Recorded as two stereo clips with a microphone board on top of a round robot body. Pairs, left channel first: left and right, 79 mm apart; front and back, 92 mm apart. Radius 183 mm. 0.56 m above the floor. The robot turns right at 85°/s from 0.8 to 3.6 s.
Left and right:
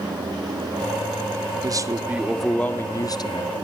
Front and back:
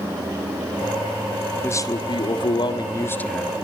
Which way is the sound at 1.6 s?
65° right.